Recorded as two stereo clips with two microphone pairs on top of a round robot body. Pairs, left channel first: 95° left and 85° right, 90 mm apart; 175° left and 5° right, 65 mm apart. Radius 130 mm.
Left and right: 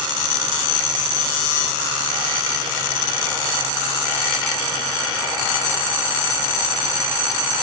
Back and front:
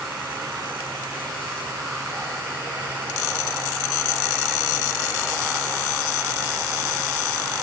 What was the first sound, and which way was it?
Only background noise.